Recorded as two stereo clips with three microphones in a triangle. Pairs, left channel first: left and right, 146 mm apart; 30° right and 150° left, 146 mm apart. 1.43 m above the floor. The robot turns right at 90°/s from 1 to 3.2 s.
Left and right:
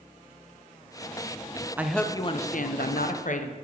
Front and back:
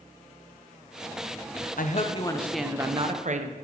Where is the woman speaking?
10° right, 0.6 m; by 3.5 s 115° left, 0.6 m.